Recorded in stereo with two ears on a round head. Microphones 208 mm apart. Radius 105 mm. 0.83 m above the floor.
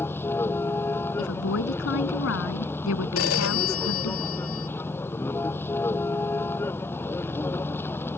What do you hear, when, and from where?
0.0 s a vehicle: 10° left (ahead or behind)
1.2 s a woman speaking: 60° left (ahead or behind)
3.2 s a phone ringing: 65° left (ahead or behind)